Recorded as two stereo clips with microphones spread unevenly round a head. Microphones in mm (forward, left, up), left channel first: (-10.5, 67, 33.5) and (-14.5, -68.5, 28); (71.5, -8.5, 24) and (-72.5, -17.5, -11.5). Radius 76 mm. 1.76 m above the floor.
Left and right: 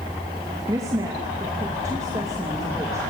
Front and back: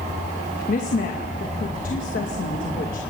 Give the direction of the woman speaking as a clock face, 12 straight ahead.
1 o'clock.